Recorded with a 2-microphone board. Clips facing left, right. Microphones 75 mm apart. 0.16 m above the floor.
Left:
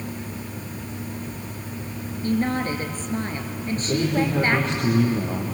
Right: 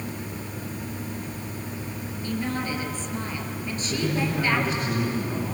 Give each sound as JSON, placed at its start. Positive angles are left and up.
{"t": 2.2, "sound": "a woman speaking", "side_deg": 45, "distance_m": 3.0}
{"t": 3.8, "sound": "a man speaking", "side_deg": 75, "distance_m": 5.5}